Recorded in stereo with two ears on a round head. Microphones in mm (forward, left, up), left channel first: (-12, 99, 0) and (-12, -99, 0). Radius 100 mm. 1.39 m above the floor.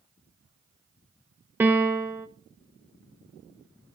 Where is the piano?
10° right (ahead or behind), 0.7 m.